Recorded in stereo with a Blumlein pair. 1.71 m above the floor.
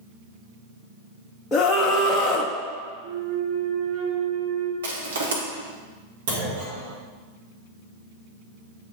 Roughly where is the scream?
Ahead.